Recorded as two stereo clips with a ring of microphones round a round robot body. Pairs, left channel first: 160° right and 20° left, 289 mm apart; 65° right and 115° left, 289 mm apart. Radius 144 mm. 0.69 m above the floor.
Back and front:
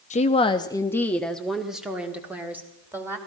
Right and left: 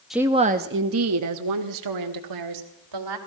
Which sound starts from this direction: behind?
A woman speaking, at 0.1 s.